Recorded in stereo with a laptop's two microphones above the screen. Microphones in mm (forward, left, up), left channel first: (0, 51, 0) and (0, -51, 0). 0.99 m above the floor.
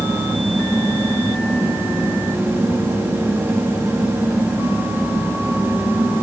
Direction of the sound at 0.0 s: 20° right (ahead or behind).